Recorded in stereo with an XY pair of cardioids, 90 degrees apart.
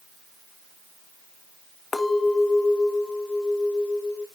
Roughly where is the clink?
Ahead left.